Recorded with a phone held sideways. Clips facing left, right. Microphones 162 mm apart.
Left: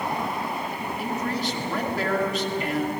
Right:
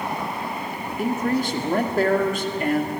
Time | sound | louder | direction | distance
1.0 | a man speaking | right 7 dB | 50° right (ahead or behind) | 2 m